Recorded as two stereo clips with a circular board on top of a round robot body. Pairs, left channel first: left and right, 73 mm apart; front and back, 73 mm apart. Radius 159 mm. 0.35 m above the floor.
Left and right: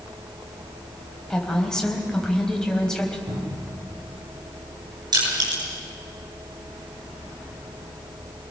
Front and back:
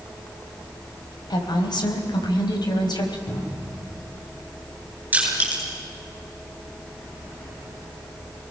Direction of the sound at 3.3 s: 55° right.